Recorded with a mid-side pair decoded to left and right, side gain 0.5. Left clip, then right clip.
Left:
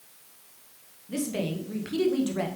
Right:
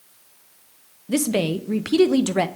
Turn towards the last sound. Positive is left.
turn(degrees=-65)